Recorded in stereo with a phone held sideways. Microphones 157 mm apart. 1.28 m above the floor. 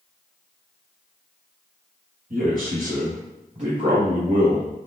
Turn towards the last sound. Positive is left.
turn(degrees=-30)  # may be behind; listen again after turning